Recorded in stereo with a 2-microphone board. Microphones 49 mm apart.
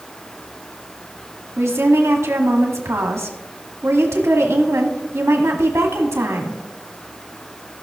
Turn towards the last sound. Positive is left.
turn(degrees=-70)  # may be behind; listen again after turning